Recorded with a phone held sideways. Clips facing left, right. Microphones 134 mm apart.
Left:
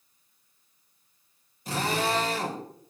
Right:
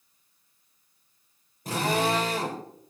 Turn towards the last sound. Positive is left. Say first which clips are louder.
# right 2 dB
turn(degrees=-55)  # may be behind; listen again after turning